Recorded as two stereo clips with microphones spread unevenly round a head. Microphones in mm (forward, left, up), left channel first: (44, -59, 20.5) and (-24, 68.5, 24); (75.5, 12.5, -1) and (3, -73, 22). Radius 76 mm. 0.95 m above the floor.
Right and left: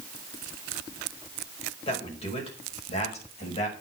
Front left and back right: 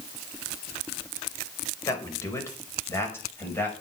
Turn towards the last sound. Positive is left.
turn(degrees=-20)